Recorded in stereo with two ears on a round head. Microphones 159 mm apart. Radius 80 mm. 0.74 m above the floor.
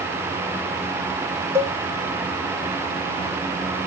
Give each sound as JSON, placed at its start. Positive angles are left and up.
{"t": 1.6, "sound": "a cowbell", "side_deg": -15, "distance_m": 0.6}